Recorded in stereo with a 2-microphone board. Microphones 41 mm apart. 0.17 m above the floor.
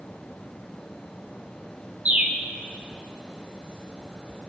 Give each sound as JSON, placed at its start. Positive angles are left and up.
{"t": 2.0, "sound": "a bird", "side_deg": -35, "distance_m": 0.8}